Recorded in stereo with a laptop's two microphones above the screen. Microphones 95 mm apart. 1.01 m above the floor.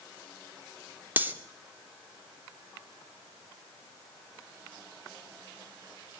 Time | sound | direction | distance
1.2 | cutlery clinking | 20° right (ahead or behind) | 1.8 m